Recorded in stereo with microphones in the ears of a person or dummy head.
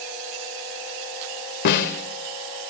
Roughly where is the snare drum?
Left.